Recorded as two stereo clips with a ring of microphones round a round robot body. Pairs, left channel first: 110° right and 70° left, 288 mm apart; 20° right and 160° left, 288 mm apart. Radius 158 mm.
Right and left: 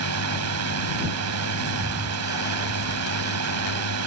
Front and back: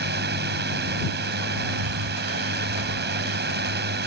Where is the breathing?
145° left.